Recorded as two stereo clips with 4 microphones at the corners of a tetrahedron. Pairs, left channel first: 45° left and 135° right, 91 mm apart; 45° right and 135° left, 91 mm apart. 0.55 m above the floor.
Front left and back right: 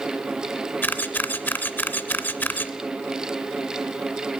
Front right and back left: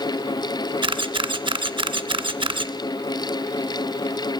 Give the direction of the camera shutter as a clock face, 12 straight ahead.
8 o'clock.